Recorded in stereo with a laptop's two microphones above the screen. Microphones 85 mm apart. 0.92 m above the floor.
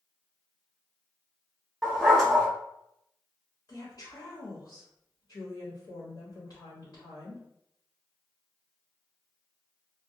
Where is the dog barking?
5° left (ahead or behind), 0.8 m.